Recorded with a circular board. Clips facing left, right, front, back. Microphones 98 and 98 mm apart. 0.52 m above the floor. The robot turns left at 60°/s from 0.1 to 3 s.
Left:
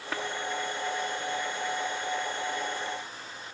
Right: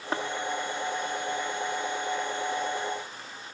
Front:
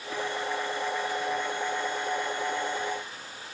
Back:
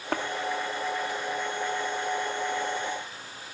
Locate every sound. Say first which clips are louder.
0.1 s tapping: right 4 dB, back 4 dB; 150° right; by 0.2 s 155° right